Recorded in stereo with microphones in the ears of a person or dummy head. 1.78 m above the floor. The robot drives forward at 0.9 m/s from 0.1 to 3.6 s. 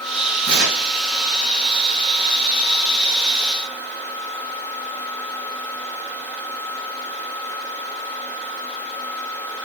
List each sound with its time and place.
0.4 s tearing paper: 60° right (ahead or behind), 3 m; by 0.9 s 55° right (ahead or behind), 3.5 m